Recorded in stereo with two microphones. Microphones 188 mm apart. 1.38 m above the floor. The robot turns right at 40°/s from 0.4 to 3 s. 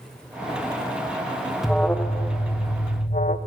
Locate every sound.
1.6 s an alarm: straight ahead, 1.1 m; by 3.4 s 55° left, 1.1 m